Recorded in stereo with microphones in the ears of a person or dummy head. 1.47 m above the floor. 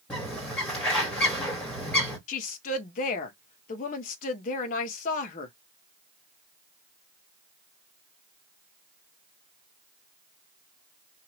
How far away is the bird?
About 2 m.